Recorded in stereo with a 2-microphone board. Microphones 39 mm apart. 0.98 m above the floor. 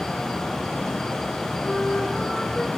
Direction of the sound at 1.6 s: 5° left (ahead or behind).